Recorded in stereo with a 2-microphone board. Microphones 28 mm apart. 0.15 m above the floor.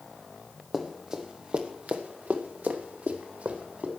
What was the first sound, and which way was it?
Running footsteps, 20° right (ahead or behind).